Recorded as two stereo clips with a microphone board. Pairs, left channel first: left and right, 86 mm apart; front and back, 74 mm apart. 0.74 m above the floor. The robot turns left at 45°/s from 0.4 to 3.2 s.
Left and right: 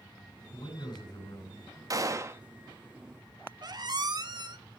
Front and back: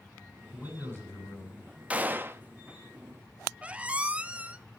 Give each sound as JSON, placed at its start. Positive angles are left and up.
{"t": 0.5, "sound": "a man speaking", "azimuth_deg": 80, "distance_m": 6.5}
{"t": 1.9, "sound": "a gunshot", "azimuth_deg": -115, "distance_m": 0.8}
{"t": 3.6, "sound": "a squeak", "azimuth_deg": -110, "distance_m": 0.7}